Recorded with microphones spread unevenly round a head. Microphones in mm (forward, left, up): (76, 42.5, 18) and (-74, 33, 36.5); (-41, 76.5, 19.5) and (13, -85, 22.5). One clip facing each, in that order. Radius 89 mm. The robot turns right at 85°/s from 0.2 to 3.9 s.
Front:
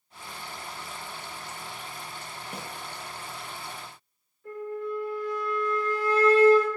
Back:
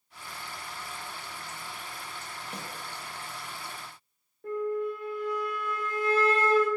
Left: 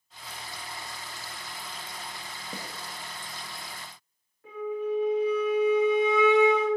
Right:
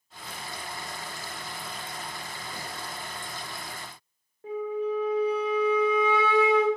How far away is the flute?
About 1.1 m.